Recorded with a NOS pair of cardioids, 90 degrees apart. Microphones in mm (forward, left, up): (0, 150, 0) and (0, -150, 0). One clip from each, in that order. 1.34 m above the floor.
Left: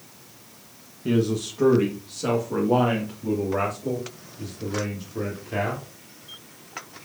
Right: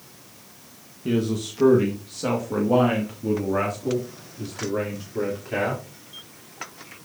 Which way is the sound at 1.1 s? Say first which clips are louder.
Left 1 dB; 5° left.